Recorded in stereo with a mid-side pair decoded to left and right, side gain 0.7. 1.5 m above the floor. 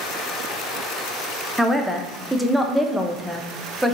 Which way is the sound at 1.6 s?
Straight ahead.